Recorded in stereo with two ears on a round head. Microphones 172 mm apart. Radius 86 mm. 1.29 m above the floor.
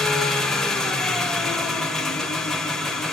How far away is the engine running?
About 1.7 m.